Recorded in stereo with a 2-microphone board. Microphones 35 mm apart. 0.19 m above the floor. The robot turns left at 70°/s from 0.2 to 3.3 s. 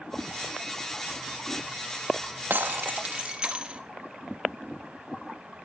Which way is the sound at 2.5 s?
100° right.